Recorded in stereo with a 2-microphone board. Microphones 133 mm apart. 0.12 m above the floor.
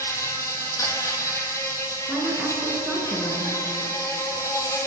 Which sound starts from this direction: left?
An insect, at 0.0 s.